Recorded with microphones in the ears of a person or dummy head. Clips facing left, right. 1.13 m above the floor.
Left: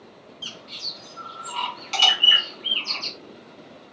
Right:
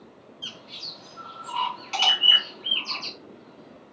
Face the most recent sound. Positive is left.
turn(degrees=15)  # may be behind; listen again after turning